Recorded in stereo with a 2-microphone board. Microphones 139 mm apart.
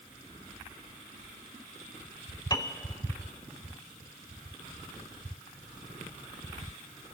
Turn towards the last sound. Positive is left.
turn(degrees=30)  # may be behind; listen again after turning